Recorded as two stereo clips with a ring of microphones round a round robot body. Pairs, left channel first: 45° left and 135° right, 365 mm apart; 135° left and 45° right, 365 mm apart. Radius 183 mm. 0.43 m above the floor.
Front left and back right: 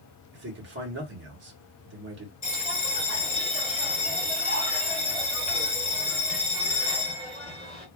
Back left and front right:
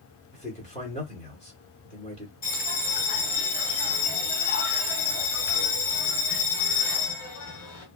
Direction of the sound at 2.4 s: 105° left.